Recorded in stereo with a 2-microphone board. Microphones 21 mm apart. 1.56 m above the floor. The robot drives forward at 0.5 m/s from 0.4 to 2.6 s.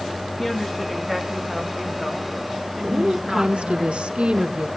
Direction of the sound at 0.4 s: 5° left (ahead or behind).